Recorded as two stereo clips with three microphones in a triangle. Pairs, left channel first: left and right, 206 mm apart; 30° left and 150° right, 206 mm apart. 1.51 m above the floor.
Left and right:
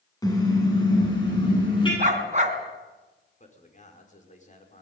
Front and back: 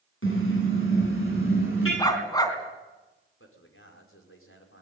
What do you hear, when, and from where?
0.2 s a car horn: 15° left, 9 m; by 1.9 s 20° left, 11.5 m
2.0 s a dog barking: 40° right, 3.5 m
3.4 s a man speaking: 35° left, 4.5 m